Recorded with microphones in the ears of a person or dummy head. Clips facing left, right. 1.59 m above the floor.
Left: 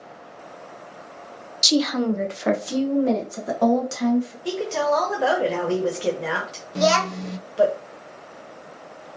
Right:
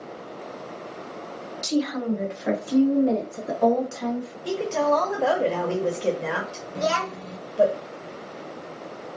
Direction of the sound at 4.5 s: 5° left (ahead or behind).